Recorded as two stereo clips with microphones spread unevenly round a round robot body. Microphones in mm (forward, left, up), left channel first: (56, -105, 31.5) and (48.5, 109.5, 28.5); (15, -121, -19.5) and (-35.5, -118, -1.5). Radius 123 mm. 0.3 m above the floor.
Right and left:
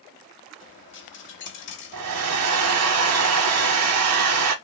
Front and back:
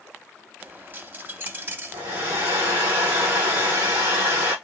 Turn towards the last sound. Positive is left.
turn(degrees=115)